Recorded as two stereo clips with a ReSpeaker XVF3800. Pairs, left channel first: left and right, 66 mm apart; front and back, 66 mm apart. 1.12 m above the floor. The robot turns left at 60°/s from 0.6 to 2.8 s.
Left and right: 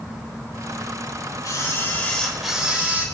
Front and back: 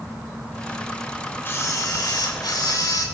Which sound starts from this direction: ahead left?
A camera shutter, at 1.4 s.